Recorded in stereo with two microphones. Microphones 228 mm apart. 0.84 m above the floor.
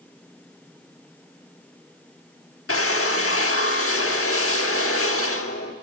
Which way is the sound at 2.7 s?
75° left (ahead or behind).